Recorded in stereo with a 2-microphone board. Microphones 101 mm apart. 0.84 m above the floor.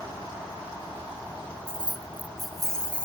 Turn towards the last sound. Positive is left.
turn(degrees=15)  # may be behind; listen again after turning